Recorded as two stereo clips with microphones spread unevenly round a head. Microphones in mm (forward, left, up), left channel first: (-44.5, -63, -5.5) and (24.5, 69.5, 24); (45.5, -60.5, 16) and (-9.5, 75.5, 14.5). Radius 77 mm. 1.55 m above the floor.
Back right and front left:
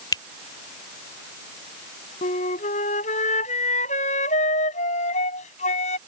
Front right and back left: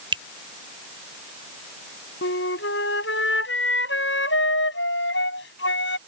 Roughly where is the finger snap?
Behind.